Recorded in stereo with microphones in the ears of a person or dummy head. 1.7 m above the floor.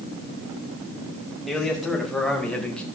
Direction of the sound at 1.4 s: 5° left (ahead or behind).